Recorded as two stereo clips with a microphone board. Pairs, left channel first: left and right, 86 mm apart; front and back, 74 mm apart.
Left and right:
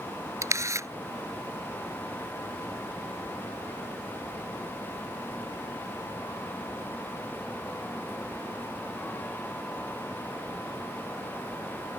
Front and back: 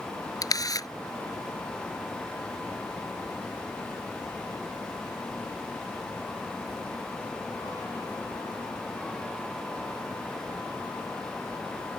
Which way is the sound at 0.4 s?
35° right.